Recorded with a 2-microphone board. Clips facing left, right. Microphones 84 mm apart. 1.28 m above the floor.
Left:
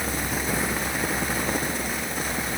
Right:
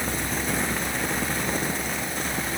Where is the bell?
I don't hear a bell.